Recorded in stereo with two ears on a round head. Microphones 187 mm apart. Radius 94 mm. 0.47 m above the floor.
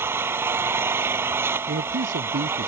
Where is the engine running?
10° right (ahead or behind).